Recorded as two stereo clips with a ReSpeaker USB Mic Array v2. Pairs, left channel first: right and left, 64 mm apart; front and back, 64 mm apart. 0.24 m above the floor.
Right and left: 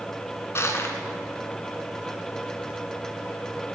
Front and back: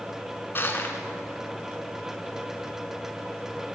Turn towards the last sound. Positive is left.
turn(degrees=-50)